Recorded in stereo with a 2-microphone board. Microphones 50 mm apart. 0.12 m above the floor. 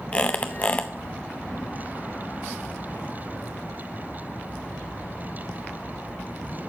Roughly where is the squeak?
Left.